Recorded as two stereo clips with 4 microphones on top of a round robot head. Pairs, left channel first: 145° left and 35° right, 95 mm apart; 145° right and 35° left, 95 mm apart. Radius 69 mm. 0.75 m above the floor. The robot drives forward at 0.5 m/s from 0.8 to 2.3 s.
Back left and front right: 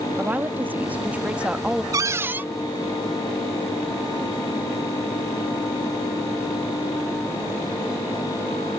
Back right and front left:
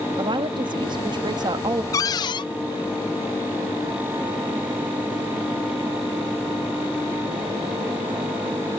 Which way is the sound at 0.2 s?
30° left.